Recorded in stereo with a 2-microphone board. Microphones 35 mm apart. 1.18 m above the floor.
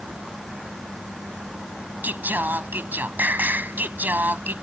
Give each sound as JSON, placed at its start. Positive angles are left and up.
{"t": 2.0, "sound": "singing", "side_deg": -80}